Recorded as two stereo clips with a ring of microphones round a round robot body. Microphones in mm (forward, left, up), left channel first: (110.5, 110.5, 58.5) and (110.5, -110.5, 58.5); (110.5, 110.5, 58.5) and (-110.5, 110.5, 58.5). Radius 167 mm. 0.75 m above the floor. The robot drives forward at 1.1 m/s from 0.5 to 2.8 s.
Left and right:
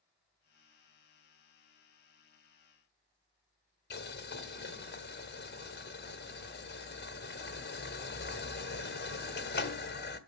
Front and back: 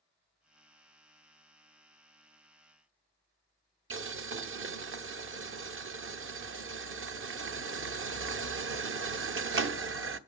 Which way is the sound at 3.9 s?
145° left.